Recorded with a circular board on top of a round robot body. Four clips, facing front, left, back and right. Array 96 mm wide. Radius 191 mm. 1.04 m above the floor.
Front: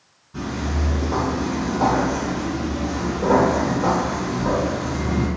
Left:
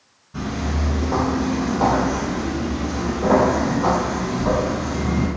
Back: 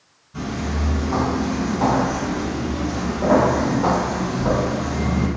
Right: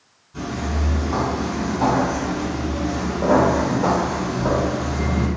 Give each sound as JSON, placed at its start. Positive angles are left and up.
{"t": 0.3, "sound": "footsteps", "azimuth_deg": 60, "distance_m": 1.4}